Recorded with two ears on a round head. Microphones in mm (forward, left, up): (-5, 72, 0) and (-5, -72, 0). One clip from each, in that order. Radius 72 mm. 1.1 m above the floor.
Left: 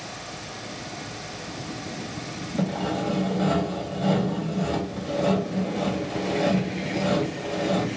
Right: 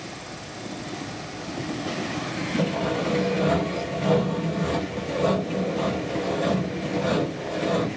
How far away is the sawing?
About 1.4 m.